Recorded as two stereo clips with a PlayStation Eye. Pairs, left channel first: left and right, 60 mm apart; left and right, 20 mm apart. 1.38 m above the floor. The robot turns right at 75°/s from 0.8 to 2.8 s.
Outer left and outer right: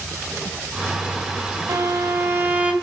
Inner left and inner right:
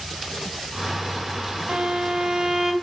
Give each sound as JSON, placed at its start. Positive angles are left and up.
{"t": 1.7, "sound": "a violin", "azimuth_deg": -100, "distance_m": 2.5}